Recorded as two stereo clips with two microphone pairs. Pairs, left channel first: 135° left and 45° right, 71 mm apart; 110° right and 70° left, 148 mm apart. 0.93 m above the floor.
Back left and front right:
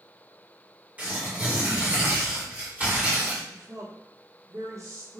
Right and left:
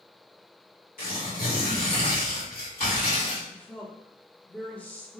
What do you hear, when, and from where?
1.0 s tearing paper: 115° right, 2 m
3.5 s a woman speaking: 40° right, 1.0 m